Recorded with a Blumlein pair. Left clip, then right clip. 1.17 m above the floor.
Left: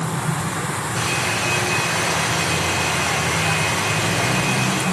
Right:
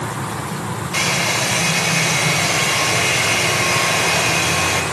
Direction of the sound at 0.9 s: 50° right.